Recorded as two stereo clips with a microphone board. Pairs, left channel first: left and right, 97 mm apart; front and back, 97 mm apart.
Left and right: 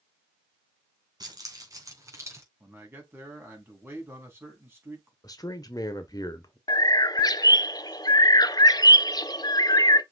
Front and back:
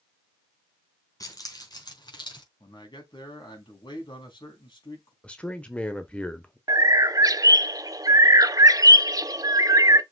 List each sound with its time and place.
1.2 s keys jangling: 50° right, 3 m; by 2.5 s 30° right, 3.5 m
2.6 s a man speaking: 25° right, 4.5 m
5.2 s a man speaking: 70° left, 1.1 m
6.7 s a bird: 130° left, 0.6 m